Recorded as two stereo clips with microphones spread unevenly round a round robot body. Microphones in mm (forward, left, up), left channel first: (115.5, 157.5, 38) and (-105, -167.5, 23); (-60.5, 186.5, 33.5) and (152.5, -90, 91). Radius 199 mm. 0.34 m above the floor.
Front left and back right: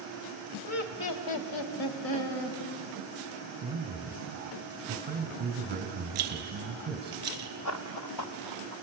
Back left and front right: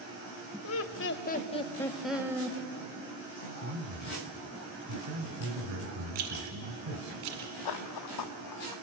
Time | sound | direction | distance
0.6 | laughter | 105° left | 1.4 m
3.6 | a man speaking | 65° right | 2 m
6.2 | a rattle | 75° right | 1.7 m
7.7 | running footsteps | 105° left | 1.2 m